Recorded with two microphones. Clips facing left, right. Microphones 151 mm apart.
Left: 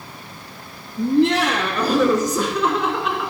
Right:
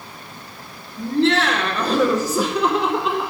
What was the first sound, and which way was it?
Laughter, 20° left (ahead or behind).